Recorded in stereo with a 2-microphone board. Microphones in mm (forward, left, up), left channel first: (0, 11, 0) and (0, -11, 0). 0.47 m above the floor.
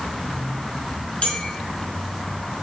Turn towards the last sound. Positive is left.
turn(degrees=65)  # may be behind; listen again after turning